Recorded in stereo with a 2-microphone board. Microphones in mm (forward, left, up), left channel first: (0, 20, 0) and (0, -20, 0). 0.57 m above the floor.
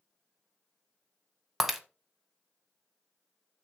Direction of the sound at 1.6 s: 5° right (ahead or behind).